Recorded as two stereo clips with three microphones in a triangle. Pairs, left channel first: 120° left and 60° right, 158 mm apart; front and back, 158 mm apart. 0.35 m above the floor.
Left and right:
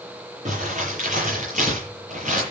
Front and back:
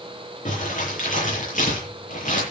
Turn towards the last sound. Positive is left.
turn(degrees=-30)